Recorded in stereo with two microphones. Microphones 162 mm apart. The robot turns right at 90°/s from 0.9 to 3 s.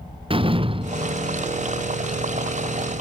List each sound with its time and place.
0.3 s a door slam: 30° right; by 1.4 s 15° left